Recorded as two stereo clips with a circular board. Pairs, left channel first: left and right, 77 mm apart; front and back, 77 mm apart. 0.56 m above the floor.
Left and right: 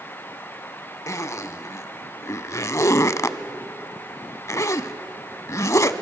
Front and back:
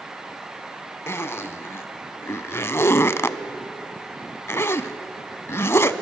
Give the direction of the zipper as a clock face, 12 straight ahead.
10 o'clock.